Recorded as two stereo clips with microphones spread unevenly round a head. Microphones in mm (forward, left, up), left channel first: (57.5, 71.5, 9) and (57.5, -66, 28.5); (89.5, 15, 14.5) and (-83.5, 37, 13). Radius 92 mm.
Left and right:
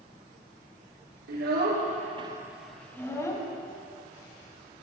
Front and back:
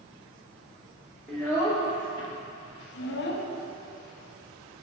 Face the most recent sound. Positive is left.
turn(degrees=25)